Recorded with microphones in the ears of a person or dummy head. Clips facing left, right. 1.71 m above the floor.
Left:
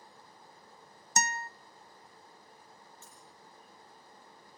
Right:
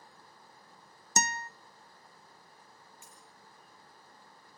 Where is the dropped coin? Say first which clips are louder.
Left 1 dB; 10° right (ahead or behind), 4.5 m.